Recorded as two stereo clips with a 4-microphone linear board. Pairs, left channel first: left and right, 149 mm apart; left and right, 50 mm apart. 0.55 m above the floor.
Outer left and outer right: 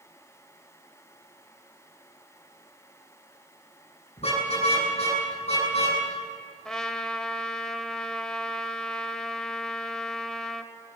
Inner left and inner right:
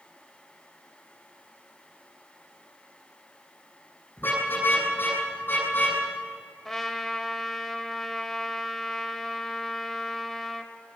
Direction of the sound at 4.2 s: 45° left (ahead or behind).